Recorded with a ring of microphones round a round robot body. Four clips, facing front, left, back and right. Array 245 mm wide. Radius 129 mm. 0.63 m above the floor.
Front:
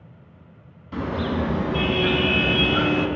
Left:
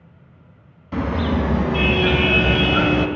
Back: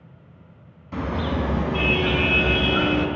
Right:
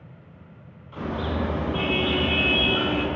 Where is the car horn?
95° left, 2.5 m; by 3.1 s 90° left, 1.4 m.